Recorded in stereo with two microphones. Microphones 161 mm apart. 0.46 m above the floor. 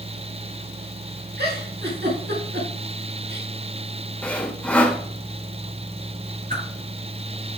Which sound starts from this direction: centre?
Sawing, at 4.2 s.